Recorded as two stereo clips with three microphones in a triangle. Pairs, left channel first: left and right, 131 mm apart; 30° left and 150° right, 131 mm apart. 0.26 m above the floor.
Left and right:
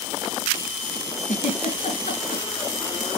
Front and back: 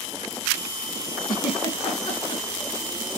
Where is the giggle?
75° left, 2.5 m.